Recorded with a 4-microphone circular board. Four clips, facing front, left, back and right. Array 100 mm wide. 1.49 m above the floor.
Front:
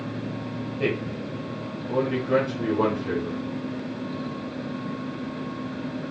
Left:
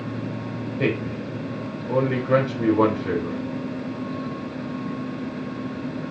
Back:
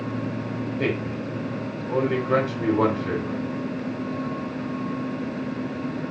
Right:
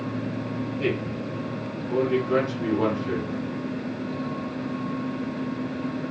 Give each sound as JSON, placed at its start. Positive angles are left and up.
{"t": 0.8, "sound": "a man speaking", "azimuth_deg": 95, "distance_m": 1.8}